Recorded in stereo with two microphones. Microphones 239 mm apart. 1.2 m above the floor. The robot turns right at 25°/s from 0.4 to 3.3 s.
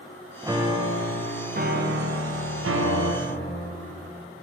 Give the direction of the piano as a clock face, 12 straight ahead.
6 o'clock.